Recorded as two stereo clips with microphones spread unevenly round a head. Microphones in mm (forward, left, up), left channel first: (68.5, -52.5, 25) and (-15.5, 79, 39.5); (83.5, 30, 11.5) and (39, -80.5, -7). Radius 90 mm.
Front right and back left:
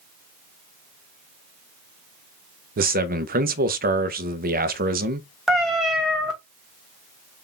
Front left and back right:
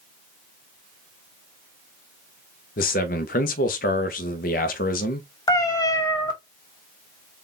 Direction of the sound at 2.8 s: 90° left.